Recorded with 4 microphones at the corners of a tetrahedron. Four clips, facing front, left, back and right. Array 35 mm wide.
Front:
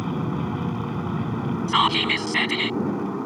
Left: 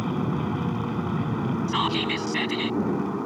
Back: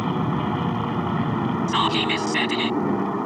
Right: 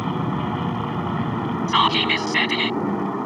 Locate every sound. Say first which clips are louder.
0.0 s an aircraft: right 3 dB, back 3 dB; 135° right
1.7 s whispering: right 9 dB, front 3 dB; 70° right